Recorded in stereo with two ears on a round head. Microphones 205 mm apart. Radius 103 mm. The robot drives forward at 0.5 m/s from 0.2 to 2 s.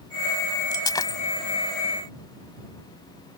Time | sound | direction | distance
0.7 | breaking glass | 20° left (ahead or behind) | ?